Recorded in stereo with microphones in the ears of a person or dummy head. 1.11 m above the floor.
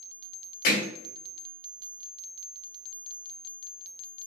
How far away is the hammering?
About 2.5 m.